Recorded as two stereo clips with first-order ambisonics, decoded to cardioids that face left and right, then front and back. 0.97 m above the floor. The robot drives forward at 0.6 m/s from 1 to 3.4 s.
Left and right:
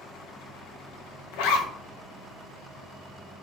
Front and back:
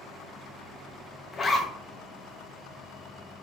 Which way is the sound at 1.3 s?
70° left.